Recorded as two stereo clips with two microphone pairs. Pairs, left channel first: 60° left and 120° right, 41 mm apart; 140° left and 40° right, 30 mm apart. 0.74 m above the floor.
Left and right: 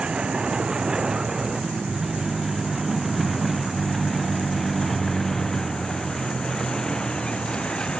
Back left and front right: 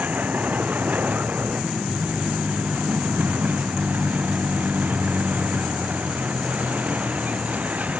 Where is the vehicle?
55° right; by 8.0 s 5° right.